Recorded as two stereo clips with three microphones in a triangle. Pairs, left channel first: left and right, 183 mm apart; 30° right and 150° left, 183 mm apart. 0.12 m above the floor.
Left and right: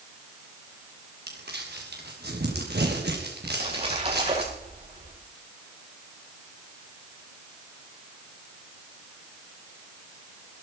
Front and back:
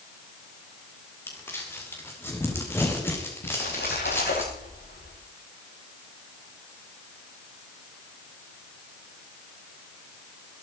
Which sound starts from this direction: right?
Crumpling, at 1.3 s.